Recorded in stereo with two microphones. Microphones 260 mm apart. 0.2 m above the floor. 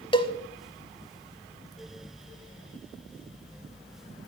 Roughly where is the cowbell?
Centre.